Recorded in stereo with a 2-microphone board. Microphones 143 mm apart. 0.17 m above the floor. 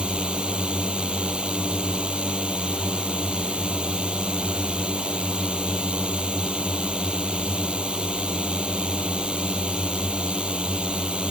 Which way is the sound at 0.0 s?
5° right (ahead or behind).